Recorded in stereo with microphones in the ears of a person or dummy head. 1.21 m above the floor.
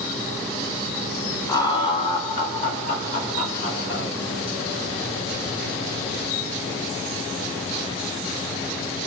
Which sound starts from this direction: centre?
Laughter, at 1.5 s.